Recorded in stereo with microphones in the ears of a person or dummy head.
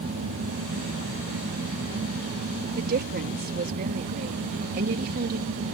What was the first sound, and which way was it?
A woman speaking, 45° right (ahead or behind).